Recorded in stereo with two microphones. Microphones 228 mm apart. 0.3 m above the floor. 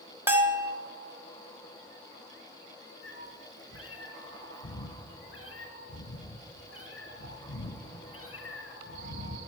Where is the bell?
10° right (ahead or behind), 0.7 m.